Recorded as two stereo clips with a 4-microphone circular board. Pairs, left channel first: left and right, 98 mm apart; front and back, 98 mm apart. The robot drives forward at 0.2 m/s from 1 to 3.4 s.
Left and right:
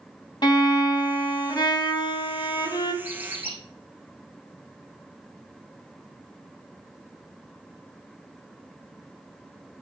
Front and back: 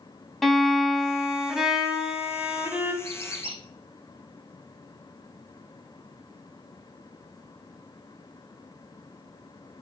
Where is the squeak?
165° right, 4 m.